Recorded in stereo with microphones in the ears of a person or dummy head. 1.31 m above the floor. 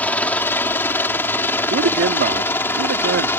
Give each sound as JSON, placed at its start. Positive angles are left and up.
{"t": 0.0, "sound": "a helicopter", "side_deg": 10}
{"t": 1.7, "sound": "a man speaking", "side_deg": -55}